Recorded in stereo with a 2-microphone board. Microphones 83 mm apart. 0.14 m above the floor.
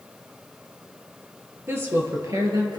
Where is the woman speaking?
30° right (ahead or behind), 3 m; by 2.8 s 55° right (ahead or behind), 3 m.